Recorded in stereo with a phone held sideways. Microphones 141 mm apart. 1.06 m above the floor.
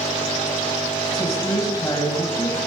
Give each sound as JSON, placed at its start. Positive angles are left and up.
{"t": 1.1, "sound": "a woman speaking", "side_deg": 25, "distance_m": 7.5}